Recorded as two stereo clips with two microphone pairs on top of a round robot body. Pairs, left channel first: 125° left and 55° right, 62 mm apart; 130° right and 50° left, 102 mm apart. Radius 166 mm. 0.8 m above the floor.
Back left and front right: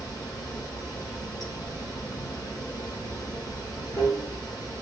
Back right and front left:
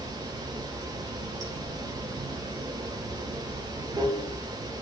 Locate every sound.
0.0 s running water: 105° left, 2.5 m